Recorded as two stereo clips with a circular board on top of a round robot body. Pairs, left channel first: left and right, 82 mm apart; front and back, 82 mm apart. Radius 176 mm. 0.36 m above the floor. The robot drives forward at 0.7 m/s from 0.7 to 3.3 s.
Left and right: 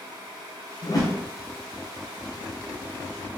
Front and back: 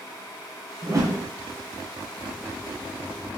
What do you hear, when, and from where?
0.8 s a whoosh: 125° left, 0.7 m; by 1.2 s 145° left, 0.8 m